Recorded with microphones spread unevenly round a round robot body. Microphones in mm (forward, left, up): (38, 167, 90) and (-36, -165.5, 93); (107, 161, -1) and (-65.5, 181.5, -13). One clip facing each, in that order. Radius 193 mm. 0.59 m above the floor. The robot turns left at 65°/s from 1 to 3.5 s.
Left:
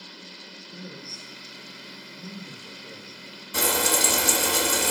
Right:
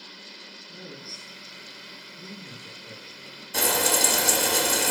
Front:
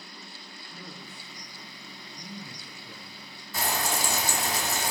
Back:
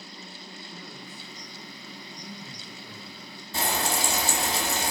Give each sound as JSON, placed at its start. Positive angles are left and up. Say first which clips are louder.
{"t": 0.7, "sound": "a man speaking", "louder": "left 1 dB, front 1 dB", "azimuth_deg": -85, "distance_m": 2.0}
{"t": 3.5, "sound": "frying", "louder": "even, back 2 dB", "azimuth_deg": 150, "distance_m": 1.0}